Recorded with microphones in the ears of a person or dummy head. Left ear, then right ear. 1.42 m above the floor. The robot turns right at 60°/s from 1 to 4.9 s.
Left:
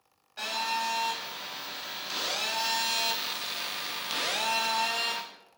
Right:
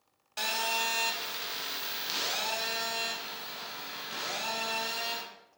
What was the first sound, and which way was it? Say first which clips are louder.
A phone buzzing: even; 90° right.